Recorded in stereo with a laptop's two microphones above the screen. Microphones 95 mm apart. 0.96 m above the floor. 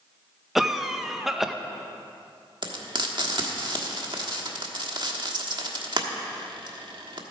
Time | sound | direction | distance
0.6 | a cough | centre (ahead or behind) | 0.6 m
2.6 | frying | 60° right (ahead or behind) | 1.3 m